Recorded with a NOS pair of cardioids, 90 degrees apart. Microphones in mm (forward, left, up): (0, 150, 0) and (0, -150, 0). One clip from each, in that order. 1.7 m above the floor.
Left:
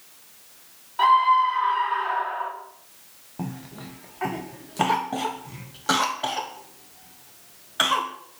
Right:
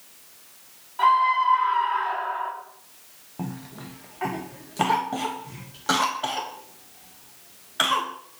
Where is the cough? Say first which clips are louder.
Even; 5° left, 1.0 m.